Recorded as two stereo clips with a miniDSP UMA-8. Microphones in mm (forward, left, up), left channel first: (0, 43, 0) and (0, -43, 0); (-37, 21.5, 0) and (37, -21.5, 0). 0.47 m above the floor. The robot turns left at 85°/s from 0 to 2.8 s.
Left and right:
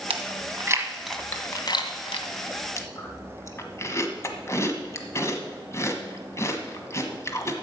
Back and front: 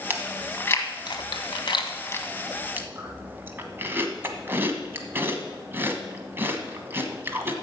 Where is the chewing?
95° right, 1.2 m; by 7.5 s 35° left, 1.2 m.